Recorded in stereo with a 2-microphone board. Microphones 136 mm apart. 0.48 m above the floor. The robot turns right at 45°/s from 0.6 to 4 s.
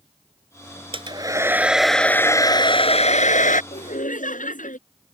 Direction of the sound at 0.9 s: 40° right.